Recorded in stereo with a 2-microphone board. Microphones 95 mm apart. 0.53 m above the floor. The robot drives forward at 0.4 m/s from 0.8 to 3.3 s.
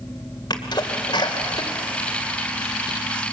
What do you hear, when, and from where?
0.5 s a sneeze: 50° left (ahead or behind), 2.5 m; by 2.9 s 60° left (ahead or behind), 2 m